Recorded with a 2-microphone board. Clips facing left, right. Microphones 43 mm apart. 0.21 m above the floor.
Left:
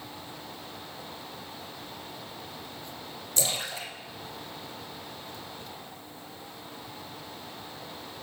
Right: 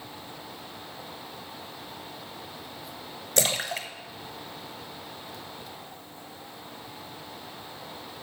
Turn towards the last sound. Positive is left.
turn(degrees=-65)  # may be behind; listen again after turning